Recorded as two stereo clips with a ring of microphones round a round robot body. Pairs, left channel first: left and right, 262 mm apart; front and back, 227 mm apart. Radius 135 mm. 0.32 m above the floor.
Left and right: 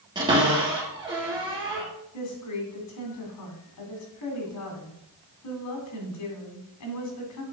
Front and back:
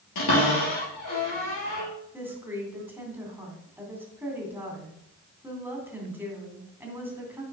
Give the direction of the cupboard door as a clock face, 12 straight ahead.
12 o'clock.